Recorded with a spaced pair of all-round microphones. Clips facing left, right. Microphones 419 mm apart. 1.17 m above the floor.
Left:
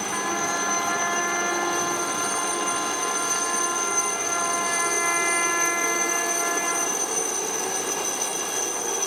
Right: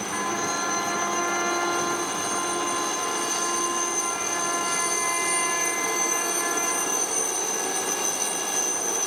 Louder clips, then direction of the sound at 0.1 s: Left 1 dB; 85° left.